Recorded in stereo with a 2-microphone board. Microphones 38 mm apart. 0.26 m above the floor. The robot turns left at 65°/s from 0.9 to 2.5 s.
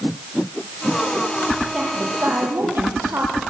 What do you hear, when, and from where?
1.7 s a woman speaking: 30° right, 8.5 m; by 3.4 s 80° right, 8.5 m